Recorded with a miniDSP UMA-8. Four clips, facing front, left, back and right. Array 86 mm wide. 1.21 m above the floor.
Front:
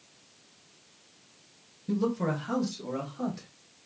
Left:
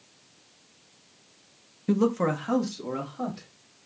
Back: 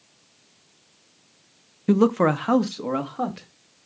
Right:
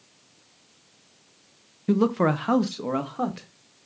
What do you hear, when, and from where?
1.9 s a man speaking: 175° right, 0.6 m; by 3.5 s 140° right, 1.7 m